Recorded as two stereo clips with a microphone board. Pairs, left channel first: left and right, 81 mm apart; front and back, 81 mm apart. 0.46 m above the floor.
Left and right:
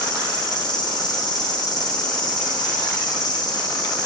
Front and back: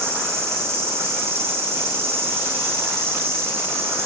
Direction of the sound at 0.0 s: 120° left.